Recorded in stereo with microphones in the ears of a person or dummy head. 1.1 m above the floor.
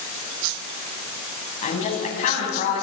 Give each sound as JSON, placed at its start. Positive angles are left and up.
{"t": 1.6, "sound": "a woman speaking", "side_deg": 40, "distance_m": 8.0}